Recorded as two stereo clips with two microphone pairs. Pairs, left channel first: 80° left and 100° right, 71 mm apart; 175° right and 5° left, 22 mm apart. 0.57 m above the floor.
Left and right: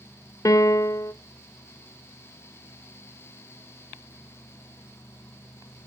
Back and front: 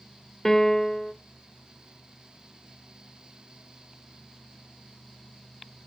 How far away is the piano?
About 0.5 m.